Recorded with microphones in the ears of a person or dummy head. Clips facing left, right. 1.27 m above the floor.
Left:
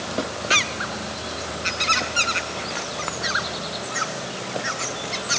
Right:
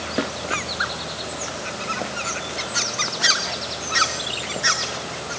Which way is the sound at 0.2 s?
5° right (ahead or behind).